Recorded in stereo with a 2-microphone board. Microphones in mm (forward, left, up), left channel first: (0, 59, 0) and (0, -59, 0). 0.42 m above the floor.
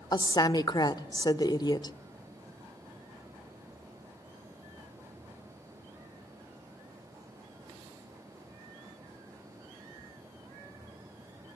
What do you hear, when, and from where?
0.1 s a woman speaking: 35° left (ahead or behind), 0.8 m